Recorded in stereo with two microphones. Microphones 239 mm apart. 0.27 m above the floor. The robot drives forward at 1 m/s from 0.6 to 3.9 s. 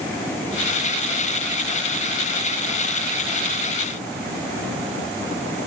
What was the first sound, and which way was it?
Only background noise.